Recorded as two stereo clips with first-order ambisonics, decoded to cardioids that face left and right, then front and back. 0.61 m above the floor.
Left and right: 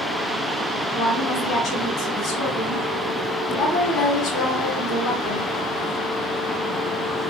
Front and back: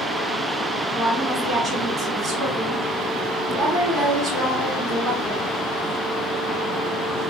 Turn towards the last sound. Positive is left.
turn(degrees=120)